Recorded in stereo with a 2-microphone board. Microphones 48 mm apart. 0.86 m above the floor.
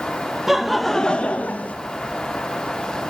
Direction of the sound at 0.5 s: 5° right (ahead or behind).